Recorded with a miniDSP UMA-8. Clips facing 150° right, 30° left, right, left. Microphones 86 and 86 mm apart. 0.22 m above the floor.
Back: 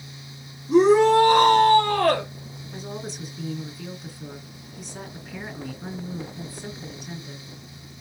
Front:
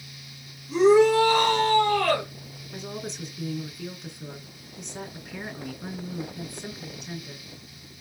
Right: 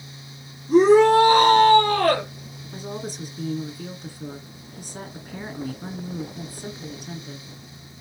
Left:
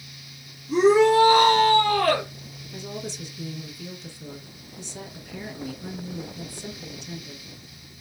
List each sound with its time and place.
0.7 s a shout: 125° right, 3 m
2.7 s a woman speaking: 65° right, 2 m